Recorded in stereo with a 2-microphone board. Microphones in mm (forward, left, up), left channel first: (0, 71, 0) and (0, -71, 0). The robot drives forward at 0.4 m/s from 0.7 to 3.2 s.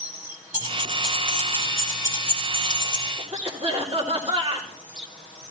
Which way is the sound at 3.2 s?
45° right (ahead or behind).